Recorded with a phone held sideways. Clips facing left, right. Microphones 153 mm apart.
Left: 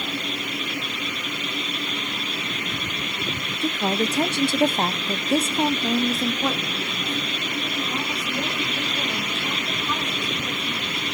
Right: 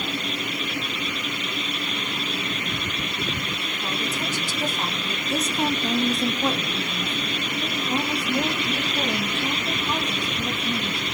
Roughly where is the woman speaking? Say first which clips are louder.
Left 12 dB; left.